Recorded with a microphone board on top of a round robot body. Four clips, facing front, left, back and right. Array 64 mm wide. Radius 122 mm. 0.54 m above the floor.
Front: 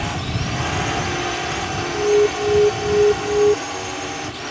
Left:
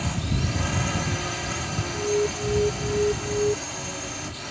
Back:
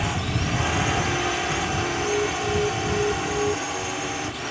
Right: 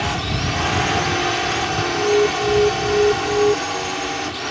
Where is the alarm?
35° right.